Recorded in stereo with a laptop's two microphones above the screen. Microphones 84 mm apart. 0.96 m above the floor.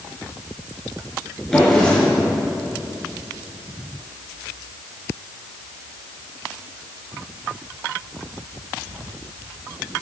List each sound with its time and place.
1.5 s a drawer: 5° left (ahead or behind), 5 m